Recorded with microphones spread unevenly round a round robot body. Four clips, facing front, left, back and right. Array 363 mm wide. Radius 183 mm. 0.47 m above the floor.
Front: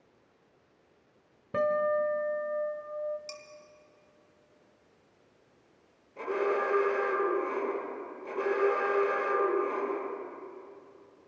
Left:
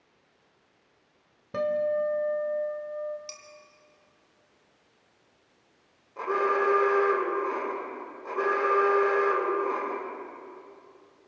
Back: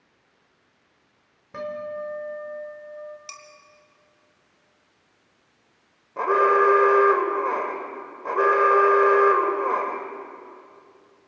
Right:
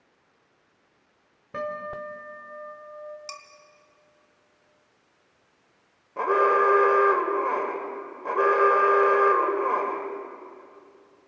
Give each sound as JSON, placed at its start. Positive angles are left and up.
{"t": 1.5, "sound": "a guitar", "azimuth_deg": 20, "distance_m": 1.8}
{"t": 3.3, "sound": "dishes clattering", "azimuth_deg": -120, "distance_m": 1.9}
{"t": 6.2, "sound": "an alarm", "azimuth_deg": -140, "distance_m": 2.5}